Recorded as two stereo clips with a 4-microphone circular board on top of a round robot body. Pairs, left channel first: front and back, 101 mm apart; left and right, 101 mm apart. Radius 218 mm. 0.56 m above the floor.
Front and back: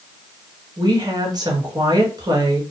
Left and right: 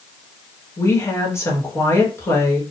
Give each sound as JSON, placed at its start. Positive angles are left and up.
{"t": 0.8, "sound": "a woman speaking", "azimuth_deg": 145, "distance_m": 1.5}